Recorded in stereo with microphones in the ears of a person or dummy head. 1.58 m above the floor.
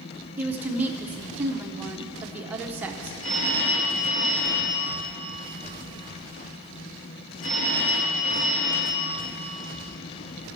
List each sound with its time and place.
0.4 s a woman speaking: 15° right (ahead or behind), 0.6 m
3.2 s a phone ringing: 50° left (ahead or behind), 1.6 m